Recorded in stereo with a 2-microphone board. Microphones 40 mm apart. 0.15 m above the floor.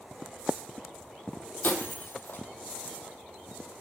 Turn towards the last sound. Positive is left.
turn(degrees=55)  # may be behind; listen again after turning